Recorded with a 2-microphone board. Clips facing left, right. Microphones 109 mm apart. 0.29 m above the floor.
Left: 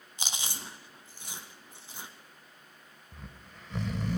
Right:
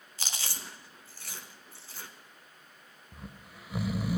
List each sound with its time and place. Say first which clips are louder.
0.2 s chewing: left 1 dB; 20° left (ahead or behind), 1.5 m
3.1 s snoring: right 2 dB; 10° right (ahead or behind), 0.6 m